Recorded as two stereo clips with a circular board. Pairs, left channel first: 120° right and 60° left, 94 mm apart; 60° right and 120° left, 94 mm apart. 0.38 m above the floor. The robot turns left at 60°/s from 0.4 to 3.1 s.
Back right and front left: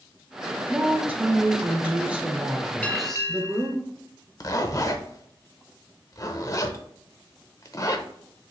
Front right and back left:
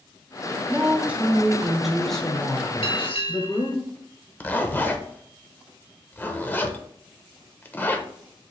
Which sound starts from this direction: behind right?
A zipper, at 4.4 s.